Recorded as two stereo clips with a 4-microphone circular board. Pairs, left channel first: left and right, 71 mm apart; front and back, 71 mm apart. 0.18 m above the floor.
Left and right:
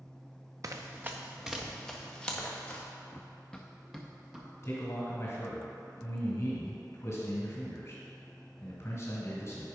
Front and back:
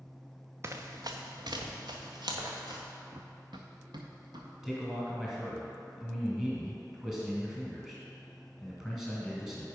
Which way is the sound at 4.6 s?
95° left.